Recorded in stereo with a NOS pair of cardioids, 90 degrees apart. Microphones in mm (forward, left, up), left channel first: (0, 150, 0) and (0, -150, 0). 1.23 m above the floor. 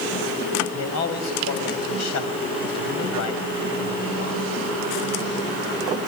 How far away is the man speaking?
About 6 m.